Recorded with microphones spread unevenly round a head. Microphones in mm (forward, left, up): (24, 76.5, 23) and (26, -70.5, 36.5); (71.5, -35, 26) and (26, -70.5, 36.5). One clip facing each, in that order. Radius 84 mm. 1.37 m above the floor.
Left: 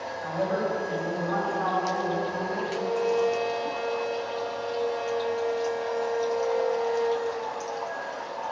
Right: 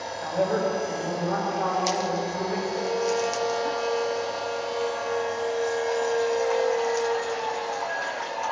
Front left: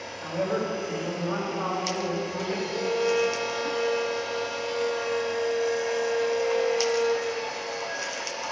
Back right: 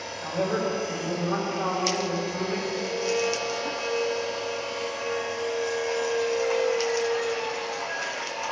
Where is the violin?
20° left, 0.7 m.